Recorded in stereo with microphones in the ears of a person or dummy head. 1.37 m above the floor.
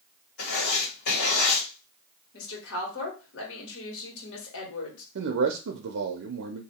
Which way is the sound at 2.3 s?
65° left (ahead or behind).